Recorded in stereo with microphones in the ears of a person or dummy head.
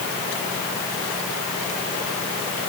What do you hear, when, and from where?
Only background noise.